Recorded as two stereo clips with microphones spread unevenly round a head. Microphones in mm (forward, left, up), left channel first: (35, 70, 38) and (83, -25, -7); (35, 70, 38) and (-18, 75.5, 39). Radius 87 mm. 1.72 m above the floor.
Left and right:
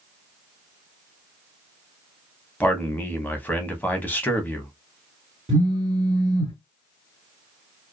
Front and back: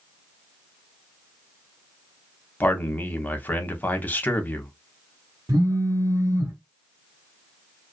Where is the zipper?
I don't hear a zipper.